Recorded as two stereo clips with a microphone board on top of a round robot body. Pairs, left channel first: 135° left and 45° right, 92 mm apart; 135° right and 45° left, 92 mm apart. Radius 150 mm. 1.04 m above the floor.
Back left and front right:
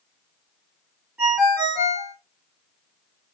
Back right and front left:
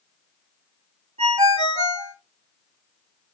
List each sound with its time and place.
1.2 s a ringtone: 35° left, 0.8 m